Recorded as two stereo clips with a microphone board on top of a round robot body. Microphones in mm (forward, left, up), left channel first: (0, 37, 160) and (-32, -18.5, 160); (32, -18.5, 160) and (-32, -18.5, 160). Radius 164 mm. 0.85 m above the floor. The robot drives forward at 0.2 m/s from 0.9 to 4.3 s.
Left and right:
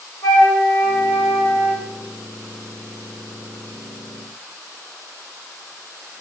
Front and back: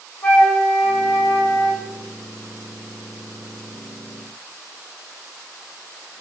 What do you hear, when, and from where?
0.2 s a flute: 65° left, 1.4 m; by 1.8 s 75° left, 1.3 m